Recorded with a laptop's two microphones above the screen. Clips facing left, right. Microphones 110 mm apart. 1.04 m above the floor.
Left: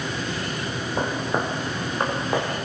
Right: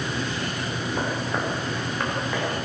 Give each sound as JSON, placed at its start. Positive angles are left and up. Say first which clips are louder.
{"t": 1.0, "sound": "footsteps", "louder": "left 3 dB", "side_deg": 20, "distance_m": 3.0}